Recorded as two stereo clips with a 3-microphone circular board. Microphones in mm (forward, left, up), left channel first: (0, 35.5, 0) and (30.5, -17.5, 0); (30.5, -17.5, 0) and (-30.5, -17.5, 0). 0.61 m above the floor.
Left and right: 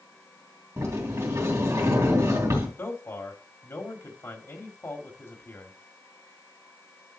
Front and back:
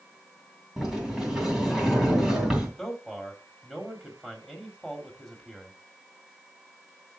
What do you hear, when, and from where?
0.8 s a sliding door: 95° right, 3 m
2.8 s a man speaking: 100° left, 1.7 m